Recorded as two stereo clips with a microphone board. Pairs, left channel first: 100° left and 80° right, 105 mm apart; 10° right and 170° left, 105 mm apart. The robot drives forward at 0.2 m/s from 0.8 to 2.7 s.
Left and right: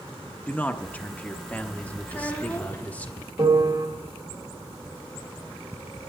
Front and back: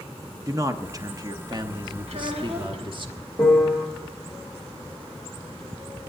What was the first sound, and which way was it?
A man speaking, 160° left.